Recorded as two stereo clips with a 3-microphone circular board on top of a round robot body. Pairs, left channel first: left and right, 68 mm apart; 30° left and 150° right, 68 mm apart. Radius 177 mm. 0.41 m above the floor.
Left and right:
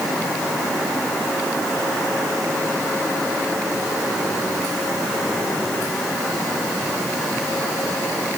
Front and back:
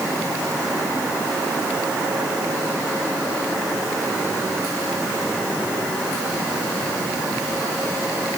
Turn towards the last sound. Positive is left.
No sound to turn to.